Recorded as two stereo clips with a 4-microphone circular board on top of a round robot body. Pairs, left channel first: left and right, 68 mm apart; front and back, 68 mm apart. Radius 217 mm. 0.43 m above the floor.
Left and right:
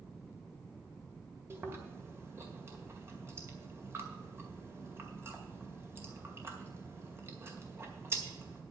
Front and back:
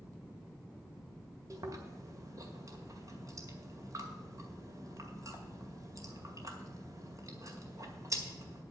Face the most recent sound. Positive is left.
turn(degrees=-145)